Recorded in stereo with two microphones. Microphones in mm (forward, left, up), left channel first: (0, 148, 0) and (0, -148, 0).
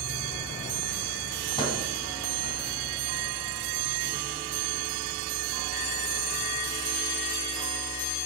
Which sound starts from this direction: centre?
A microwave, at 1.6 s.